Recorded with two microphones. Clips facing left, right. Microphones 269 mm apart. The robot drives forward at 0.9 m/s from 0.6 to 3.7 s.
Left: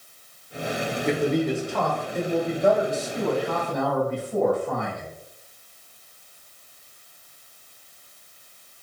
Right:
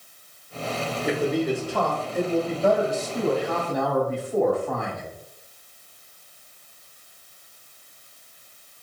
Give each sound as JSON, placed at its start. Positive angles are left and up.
{"t": 1.1, "sound": "a man speaking", "side_deg": -10, "distance_m": 1.2}